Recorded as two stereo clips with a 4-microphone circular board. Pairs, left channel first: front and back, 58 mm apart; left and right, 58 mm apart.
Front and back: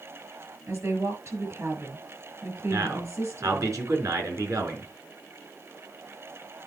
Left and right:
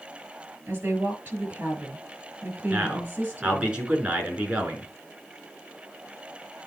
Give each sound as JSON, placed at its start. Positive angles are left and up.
{"t": 0.7, "sound": "a woman speaking", "azimuth_deg": -145, "distance_m": 6.0}
{"t": 2.7, "sound": "a man speaking", "azimuth_deg": -160, "distance_m": 4.0}